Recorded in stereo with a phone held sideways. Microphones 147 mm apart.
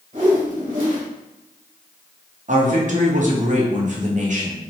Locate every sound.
0.1 s a whoosh: 60° right (ahead or behind), 1.6 m
2.5 s a man speaking: 55° right (ahead or behind), 0.9 m